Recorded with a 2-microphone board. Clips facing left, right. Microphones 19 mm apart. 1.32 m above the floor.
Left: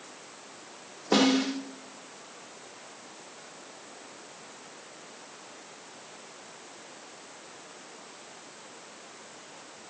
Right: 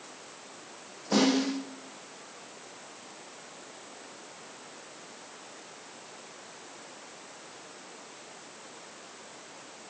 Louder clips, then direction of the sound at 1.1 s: Left 2 dB; 45° left (ahead or behind).